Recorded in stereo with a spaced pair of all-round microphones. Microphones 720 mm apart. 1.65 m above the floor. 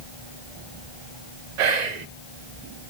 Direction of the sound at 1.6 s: 75° right (ahead or behind).